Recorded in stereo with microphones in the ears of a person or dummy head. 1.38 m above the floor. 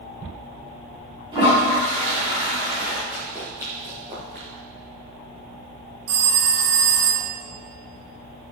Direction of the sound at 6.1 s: 70° right (ahead or behind).